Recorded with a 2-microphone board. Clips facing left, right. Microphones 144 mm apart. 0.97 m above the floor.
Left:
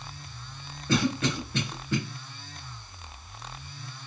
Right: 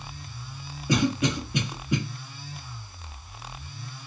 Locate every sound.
0.9 s a cough: 15° right (ahead or behind), 0.7 m